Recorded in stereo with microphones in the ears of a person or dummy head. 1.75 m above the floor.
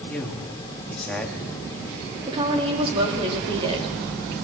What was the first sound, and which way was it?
A man speaking, 5° left (ahead or behind).